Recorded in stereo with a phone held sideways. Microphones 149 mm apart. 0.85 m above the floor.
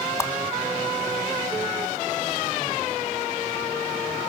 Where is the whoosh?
20° left (ahead or behind), 1.3 m.